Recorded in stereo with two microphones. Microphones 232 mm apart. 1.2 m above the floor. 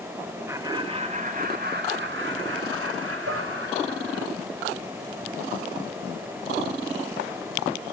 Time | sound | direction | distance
0.5 | laughter | 10° right (ahead or behind) | 1.3 m
3.3 | dishes clattering | 70° right (ahead or behind) | 2.5 m